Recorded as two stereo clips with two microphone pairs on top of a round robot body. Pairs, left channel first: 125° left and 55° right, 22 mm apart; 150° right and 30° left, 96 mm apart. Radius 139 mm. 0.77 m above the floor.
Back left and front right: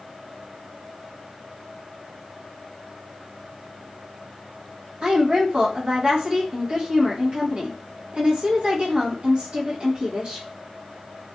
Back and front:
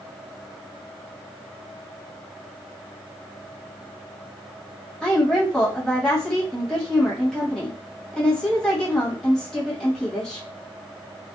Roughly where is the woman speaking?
Ahead right.